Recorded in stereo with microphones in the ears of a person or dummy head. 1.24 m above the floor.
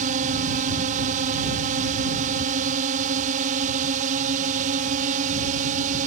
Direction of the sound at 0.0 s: 45° right (ahead or behind).